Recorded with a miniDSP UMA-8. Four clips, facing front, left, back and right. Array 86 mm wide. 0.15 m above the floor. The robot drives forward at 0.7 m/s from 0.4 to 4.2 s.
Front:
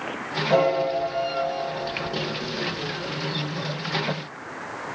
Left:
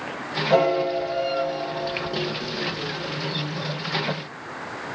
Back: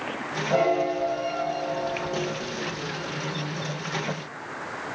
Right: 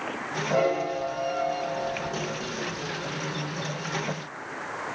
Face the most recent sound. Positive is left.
turn(degrees=105)